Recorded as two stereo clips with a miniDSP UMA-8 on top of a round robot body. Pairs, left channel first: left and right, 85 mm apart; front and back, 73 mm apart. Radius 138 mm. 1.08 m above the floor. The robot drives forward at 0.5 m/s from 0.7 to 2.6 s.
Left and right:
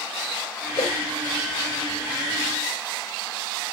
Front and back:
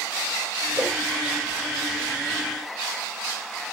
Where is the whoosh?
125° left, 5 m.